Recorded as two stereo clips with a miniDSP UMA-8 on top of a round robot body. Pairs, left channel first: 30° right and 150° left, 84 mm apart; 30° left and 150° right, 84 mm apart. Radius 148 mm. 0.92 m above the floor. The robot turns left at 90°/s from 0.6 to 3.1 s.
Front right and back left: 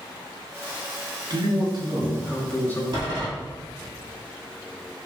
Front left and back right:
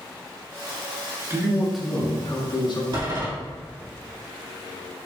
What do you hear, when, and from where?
1.3 s a man speaking: 160° left, 1.0 m; by 2.8 s 25° left, 1.0 m
2.9 s a door slam: straight behind, 1.7 m; by 3.3 s 165° left, 1.7 m